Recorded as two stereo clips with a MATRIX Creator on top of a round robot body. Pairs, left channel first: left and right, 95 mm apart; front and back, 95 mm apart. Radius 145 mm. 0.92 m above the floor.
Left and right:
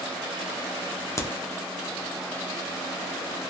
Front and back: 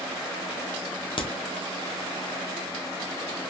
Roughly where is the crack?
Ahead left.